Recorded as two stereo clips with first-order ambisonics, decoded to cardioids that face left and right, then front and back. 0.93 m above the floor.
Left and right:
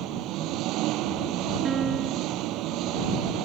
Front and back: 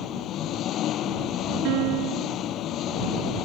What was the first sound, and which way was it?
An engine running, 50° right.